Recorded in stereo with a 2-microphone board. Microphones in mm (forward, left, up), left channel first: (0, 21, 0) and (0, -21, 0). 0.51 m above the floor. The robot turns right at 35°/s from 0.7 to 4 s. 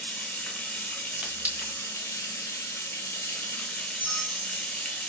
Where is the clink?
20° right (ahead or behind), 1.1 m; by 1.8 s 35° right (ahead or behind), 1.1 m.